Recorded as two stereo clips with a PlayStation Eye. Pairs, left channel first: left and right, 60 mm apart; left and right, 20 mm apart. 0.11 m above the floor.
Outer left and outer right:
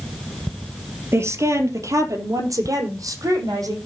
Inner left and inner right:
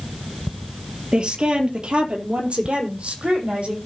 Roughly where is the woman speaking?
Right.